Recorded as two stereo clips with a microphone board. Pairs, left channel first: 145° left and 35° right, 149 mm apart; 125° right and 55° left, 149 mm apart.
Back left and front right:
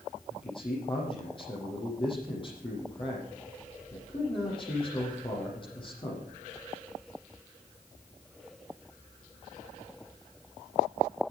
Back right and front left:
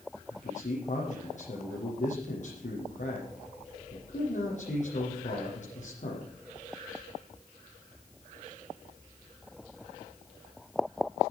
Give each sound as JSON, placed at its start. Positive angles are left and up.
{"t": 0.3, "sound": "a man speaking", "azimuth_deg": -160, "distance_m": 8.0}